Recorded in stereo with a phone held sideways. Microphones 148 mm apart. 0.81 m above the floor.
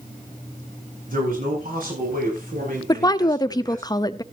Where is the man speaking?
70° right (ahead or behind), 7.5 m; by 3.9 s 75° right (ahead or behind), 6 m.